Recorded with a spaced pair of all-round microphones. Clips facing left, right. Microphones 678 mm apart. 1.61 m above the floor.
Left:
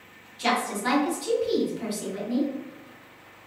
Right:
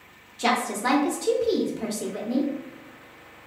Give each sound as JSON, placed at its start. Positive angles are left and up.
{"t": 0.4, "sound": "a woman speaking", "side_deg": -75, "distance_m": 0.8}